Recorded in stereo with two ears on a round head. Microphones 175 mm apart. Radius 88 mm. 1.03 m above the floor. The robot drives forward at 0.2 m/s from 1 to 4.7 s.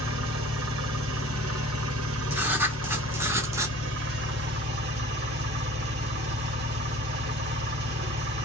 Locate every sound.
0.0 s an engine running: 70° right (ahead or behind), 0.8 m; by 8.4 s 55° right (ahead or behind), 0.9 m
2.3 s writing: 10° right (ahead or behind), 0.7 m; by 3.8 s 15° right (ahead or behind), 0.5 m